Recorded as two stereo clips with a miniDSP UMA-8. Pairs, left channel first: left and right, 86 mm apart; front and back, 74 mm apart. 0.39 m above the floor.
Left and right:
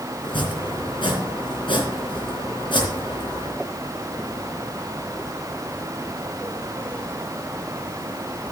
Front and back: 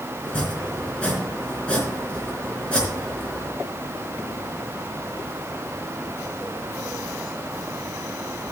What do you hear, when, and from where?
0.2 s chopping: 75° left, 3.5 m